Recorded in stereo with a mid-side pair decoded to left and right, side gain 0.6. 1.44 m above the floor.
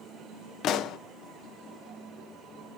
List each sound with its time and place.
0.6 s a pop: 60° left, 0.6 m